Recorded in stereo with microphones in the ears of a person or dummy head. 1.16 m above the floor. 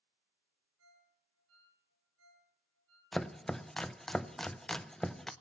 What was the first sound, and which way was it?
A ringtone, 85° right.